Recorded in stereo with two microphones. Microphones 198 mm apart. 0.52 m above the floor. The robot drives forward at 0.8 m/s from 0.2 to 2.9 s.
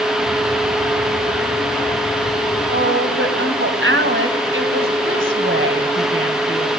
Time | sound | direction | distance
2.7 | a woman speaking | 75° right (ahead or behind) | 3 m